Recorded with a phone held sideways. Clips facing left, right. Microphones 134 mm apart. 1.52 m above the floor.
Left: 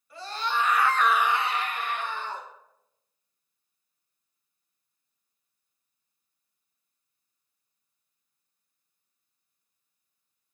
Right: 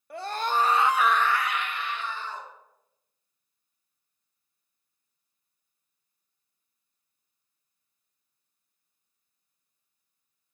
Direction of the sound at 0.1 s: 60° right (ahead or behind).